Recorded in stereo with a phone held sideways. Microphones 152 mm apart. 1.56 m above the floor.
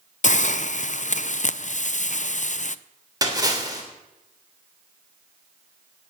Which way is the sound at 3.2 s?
25° right (ahead or behind).